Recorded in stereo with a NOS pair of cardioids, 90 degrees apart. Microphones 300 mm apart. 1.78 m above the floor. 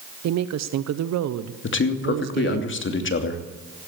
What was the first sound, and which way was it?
A woman speaking, 60° right.